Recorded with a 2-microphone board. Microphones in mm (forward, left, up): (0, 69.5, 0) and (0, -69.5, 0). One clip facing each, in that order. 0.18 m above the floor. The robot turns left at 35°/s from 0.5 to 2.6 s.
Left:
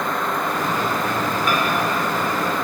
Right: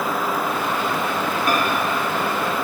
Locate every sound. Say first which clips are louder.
1.5 s a microwave: right 2 dB; 45° right (ahead or behind), 1.0 m; by 1.6 s 40° right (ahead or behind), 1.0 m